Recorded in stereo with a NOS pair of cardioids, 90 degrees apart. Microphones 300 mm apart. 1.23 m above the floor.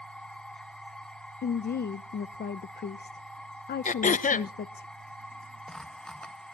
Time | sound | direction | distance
0.0 | a machine running | 5° left | 1.2 m
1.4 | a woman speaking | 35° left | 0.6 m
3.9 | throat clearing | 25° left | 0.8 m